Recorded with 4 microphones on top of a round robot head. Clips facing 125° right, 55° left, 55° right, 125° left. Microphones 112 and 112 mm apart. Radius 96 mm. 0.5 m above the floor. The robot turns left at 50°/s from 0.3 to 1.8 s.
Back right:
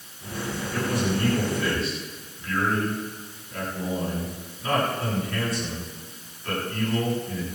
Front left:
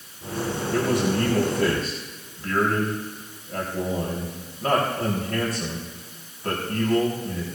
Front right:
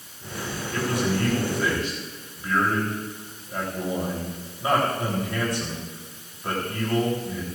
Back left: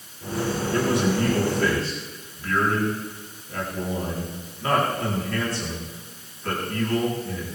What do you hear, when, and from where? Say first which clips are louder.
0.7 s a man speaking: front left 4 dB, back left 2 dB; 70° left, 4 m; by 7.5 s 15° left, 4 m